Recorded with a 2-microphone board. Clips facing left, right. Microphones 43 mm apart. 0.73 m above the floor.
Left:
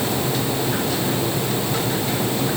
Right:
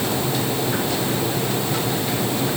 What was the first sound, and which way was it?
Only background noise.